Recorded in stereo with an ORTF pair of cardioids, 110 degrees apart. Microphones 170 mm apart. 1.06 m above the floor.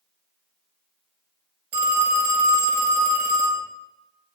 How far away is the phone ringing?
About 0.7 m.